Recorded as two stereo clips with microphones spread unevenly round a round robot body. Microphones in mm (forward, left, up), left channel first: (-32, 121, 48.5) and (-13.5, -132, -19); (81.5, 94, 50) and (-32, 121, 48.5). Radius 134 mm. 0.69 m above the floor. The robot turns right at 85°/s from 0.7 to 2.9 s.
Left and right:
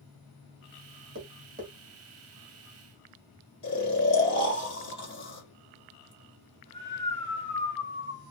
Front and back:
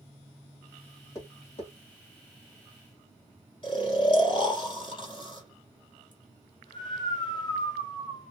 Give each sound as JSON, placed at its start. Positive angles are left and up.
{"t": 1.1, "sound": "tapping", "azimuth_deg": -80, "distance_m": 1.3}
{"t": 3.6, "sound": "snoring", "azimuth_deg": 30, "distance_m": 1.4}